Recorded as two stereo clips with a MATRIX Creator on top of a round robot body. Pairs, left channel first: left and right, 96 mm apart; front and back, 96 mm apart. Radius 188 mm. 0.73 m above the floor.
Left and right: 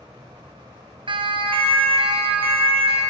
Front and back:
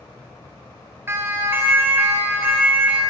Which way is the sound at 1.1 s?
115° right.